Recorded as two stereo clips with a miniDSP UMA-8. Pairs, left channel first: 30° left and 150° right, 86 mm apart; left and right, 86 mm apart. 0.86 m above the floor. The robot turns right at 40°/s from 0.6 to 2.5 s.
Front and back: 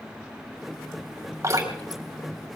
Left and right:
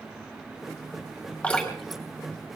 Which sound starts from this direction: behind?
Dripping, at 1.4 s.